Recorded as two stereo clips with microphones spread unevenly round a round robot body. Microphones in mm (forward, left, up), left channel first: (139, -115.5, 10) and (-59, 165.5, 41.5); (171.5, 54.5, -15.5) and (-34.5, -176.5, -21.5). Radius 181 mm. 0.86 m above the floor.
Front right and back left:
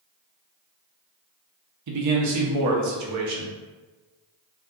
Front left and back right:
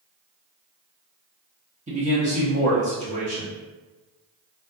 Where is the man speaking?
160° left, 0.6 m.